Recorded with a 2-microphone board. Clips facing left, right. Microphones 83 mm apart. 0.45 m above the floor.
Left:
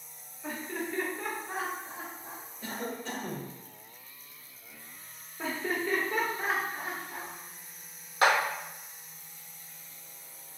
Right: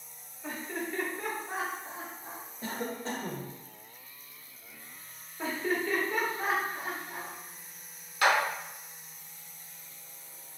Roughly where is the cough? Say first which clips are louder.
Right 1 dB; right.